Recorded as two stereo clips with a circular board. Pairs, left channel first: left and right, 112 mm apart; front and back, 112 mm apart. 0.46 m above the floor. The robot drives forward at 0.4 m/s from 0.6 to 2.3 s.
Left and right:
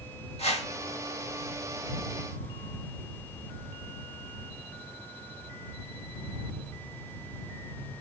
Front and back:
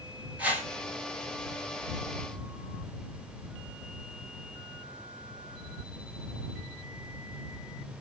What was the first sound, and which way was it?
A whoosh, 105° left.